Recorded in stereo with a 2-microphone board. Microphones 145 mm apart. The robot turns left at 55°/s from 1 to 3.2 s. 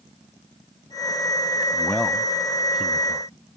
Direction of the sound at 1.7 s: 15° left (ahead or behind).